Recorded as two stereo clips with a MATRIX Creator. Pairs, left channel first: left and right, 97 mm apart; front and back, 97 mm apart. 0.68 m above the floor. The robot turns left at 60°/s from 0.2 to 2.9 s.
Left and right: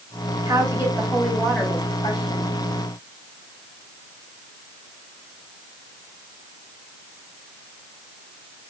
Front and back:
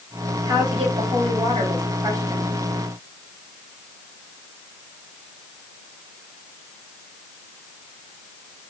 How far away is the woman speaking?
About 3.5 m.